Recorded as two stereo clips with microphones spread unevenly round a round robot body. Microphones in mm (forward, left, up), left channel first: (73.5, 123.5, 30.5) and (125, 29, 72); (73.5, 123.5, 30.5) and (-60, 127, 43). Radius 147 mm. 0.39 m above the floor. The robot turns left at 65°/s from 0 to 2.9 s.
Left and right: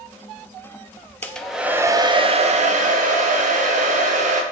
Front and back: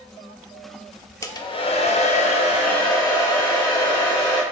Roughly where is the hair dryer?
Ahead left.